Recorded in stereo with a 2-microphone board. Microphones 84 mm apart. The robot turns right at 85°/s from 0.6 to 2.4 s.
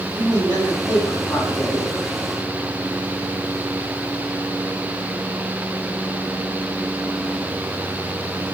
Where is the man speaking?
50° right, 9.5 m; by 1.9 s 60° left, 9.5 m.